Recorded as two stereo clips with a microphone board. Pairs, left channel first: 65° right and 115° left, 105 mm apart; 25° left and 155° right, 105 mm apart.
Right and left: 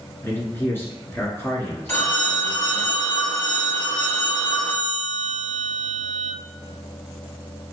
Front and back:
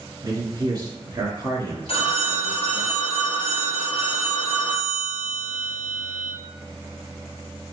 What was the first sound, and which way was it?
A man speaking, 125° right.